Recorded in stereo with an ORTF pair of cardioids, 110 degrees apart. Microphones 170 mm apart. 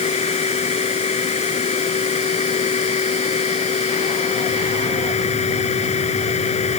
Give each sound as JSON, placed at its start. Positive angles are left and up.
{"t": 0.0, "sound": "a machine running", "azimuth_deg": 40}